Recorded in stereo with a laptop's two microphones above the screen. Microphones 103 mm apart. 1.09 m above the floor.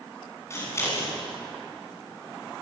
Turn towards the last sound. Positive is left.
turn(degrees=25)  # may be behind; listen again after turning